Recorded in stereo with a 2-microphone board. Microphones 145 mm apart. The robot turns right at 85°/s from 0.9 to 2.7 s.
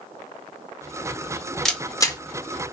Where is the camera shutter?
5° left (ahead or behind), 0.6 m; by 2.2 s 30° left (ahead or behind), 0.6 m.